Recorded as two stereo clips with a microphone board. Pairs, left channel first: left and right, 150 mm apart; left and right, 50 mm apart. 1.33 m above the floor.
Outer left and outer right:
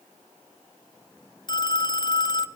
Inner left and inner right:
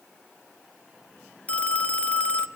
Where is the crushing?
I don't hear crushing.